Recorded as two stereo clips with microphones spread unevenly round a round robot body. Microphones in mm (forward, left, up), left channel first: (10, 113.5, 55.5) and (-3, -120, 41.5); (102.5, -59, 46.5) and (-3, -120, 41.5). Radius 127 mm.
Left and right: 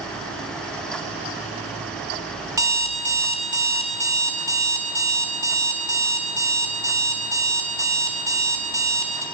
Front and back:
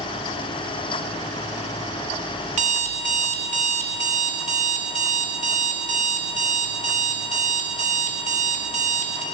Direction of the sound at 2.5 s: 170° right.